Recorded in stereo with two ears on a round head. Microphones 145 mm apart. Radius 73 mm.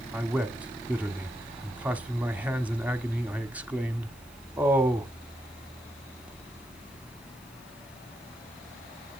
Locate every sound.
0.1 s a man speaking: 10° right (ahead or behind), 1.2 m